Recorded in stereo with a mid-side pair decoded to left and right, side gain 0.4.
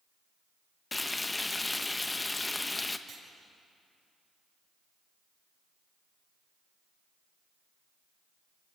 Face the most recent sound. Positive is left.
turn(degrees=-55)